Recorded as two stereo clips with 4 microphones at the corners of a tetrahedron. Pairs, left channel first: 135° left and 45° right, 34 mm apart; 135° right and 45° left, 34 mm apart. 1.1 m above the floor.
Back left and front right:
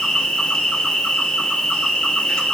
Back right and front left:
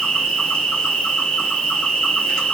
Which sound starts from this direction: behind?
An insect, at 0.0 s.